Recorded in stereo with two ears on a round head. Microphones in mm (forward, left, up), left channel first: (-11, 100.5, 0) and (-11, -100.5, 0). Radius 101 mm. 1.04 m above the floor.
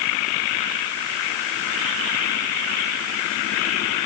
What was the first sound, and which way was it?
Only background noise.